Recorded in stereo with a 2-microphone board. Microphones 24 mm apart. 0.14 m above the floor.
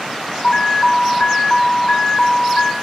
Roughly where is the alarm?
Left.